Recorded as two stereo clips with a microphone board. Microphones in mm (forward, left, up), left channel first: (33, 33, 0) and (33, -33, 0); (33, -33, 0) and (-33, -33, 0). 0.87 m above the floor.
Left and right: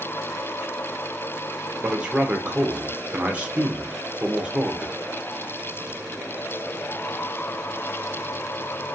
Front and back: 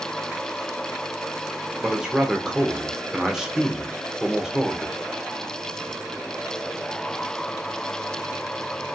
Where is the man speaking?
120° right, 0.6 m.